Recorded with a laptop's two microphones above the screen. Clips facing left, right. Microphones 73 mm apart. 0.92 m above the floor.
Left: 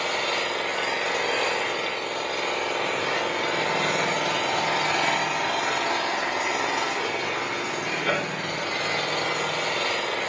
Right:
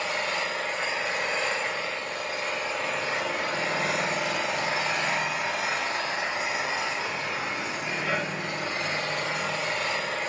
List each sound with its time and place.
0.0 s an engine running: 60° left (ahead or behind), 6 m